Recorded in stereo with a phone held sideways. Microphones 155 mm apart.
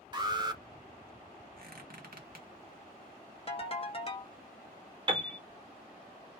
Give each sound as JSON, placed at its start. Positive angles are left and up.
{"t": 0.1, "sound": "an alarm", "side_deg": -25, "distance_m": 0.6}
{"t": 1.6, "sound": "a squeak", "side_deg": -65, "distance_m": 0.9}
{"t": 3.5, "sound": "a ringtone", "side_deg": 40, "distance_m": 0.7}
{"t": 5.1, "sound": "a piano", "side_deg": -30, "distance_m": 0.9}